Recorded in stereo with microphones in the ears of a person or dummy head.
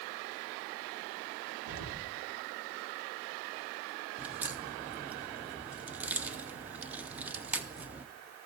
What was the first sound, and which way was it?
An explosion, 75° right (ahead or behind).